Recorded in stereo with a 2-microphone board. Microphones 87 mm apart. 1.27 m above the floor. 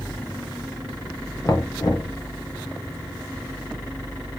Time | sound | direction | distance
1.4 | knocking | 40° left (ahead or behind) | 0.6 m